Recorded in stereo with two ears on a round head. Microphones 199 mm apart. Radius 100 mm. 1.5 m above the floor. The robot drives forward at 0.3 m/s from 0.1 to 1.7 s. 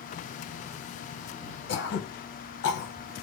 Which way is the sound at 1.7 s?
55° left (ahead or behind).